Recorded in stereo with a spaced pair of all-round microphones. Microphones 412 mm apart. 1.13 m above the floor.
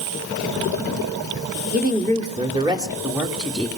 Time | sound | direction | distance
1.7 | a woman speaking | 20° right (ahead or behind) | 2.5 m